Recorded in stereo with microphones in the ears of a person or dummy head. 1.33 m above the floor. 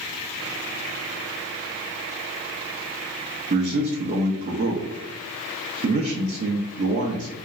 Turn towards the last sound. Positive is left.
turn(degrees=-35)  # may be behind; listen again after turning